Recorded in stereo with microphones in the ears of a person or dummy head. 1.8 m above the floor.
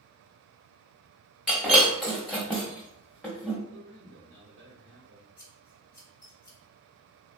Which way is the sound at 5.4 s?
15° left (ahead or behind).